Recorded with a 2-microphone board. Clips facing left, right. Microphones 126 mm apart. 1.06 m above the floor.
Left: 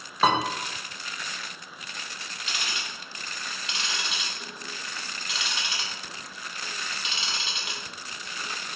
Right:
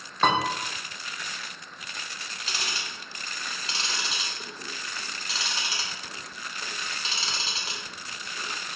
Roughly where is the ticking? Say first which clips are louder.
Even; right.